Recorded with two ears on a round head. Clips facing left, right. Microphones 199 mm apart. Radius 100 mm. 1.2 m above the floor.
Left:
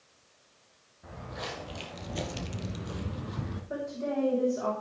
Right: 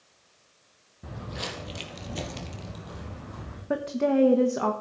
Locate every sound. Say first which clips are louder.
1.0 s footsteps: right 3 dB; 45° right (ahead or behind), 2.5 m; by 3.6 s 55° left (ahead or behind), 2.5 m
3.7 s a woman speaking: right 9 dB; 75° right (ahead or behind), 1.3 m